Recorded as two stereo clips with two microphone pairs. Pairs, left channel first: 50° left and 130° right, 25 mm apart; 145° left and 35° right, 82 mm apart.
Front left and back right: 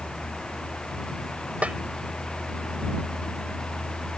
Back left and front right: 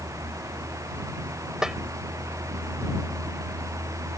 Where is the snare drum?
120° right.